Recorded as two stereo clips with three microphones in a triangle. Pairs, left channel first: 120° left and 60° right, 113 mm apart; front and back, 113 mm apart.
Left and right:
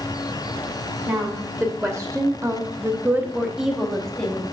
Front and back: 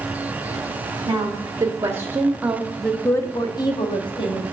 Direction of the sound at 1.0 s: 125° right.